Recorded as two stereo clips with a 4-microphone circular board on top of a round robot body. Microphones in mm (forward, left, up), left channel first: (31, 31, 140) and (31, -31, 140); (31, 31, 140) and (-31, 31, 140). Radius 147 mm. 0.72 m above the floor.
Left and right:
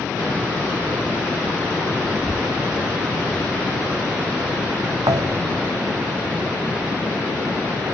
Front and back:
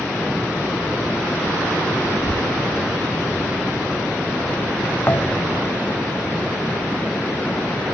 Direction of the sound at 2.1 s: 5° left.